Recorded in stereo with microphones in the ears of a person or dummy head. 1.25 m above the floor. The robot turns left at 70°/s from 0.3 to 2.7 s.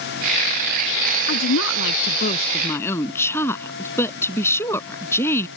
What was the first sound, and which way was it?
A woman speaking, 115° left.